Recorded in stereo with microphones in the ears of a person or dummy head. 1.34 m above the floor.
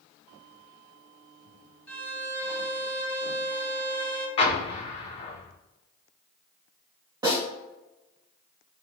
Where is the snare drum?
20° right (ahead or behind), 1.7 m.